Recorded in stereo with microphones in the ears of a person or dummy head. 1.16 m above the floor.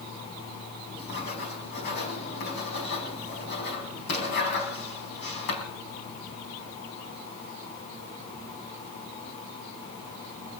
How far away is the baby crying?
No baby crying in this recording.